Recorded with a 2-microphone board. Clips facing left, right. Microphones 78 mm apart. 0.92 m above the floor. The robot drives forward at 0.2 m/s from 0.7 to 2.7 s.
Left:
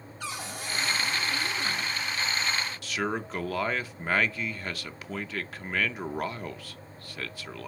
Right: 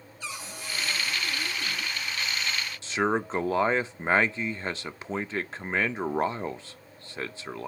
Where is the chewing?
I don't hear chewing.